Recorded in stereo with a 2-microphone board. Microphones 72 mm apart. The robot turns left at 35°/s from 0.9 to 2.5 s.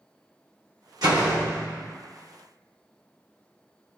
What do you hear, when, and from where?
1.0 s a door slam: 85° right, 1.0 m; by 1.9 s 115° right, 1.0 m